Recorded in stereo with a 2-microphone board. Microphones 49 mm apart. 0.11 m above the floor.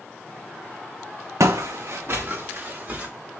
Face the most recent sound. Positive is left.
turn(degrees=-30)  # may be behind; listen again after turning